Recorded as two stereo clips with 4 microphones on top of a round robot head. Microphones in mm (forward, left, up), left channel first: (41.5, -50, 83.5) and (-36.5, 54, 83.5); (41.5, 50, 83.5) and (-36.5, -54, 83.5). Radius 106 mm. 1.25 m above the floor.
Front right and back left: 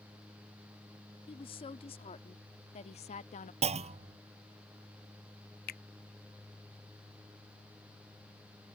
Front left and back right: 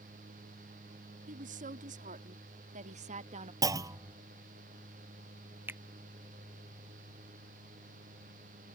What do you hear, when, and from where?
1.3 s a woman speaking: 105° right; by 3.5 s 90° right
3.6 s a clunk: 170° left
5.7 s a finger snap: 50° right